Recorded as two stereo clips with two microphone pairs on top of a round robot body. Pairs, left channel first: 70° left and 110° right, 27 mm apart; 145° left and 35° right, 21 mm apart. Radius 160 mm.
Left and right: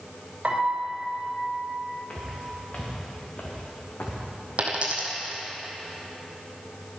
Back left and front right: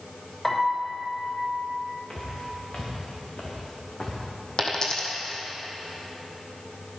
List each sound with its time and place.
0.4 s a piano: 140° right, 3 m
2.1 s footsteps: 115° left, 2.5 m; by 4.2 s 90° left, 2 m
4.6 s a dropped coin: 155° right, 1.2 m